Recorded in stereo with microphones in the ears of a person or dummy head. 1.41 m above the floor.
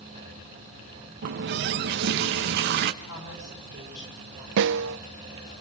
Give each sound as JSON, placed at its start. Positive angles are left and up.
{"t": 1.2, "sound": "a running tap", "side_deg": -45, "distance_m": 0.7}
{"t": 3.0, "sound": "a woman speaking", "side_deg": 65, "distance_m": 9.5}
{"t": 4.6, "sound": "a snare drum", "side_deg": -65, "distance_m": 0.5}